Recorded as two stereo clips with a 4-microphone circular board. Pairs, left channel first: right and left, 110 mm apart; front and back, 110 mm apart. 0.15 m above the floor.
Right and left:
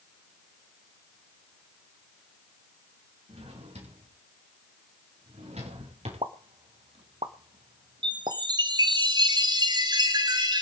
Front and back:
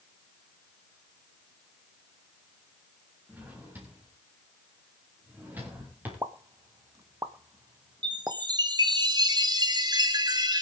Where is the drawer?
105° left, 6.5 m.